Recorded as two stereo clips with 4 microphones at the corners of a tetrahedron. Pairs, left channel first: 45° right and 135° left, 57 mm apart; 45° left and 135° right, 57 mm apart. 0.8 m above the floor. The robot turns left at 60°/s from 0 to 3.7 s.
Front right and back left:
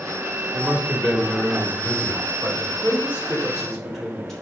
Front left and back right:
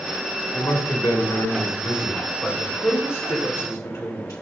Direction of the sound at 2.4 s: 115° left.